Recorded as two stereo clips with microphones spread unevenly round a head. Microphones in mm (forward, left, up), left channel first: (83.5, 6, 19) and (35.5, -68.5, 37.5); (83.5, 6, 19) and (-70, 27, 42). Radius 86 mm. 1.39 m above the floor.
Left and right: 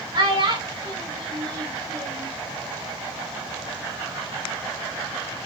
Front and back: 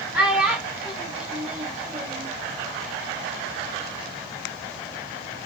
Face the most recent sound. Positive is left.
turn(degrees=-110)